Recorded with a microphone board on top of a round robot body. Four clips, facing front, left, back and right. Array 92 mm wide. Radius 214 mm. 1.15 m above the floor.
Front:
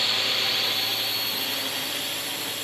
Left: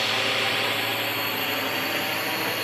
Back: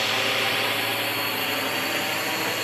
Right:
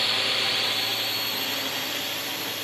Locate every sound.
0.0 s a drone: 150° left; by 2.6 s 140° left